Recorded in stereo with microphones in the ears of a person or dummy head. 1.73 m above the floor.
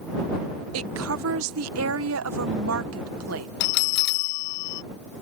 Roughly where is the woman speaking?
Right.